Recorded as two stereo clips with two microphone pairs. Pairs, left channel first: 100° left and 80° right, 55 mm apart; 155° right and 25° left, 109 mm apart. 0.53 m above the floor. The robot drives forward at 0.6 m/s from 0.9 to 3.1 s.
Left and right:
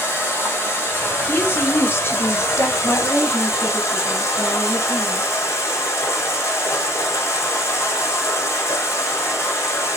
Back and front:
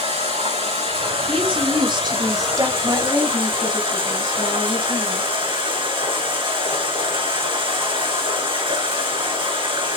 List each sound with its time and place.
0.0 s running water: 50° left, 5 m; by 10.0 s 65° left, 4 m
1.3 s a woman speaking: 50° left, 1.7 m; by 2.7 s 85° left, 1.3 m
2.8 s a woman speaking: 70° left, 4 m; by 5.3 s 75° left, 3.5 m